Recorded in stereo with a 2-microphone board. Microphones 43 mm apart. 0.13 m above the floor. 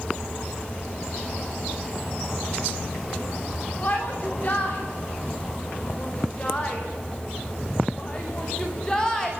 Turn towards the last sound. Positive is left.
turn(degrees=15)  # may be behind; listen again after turning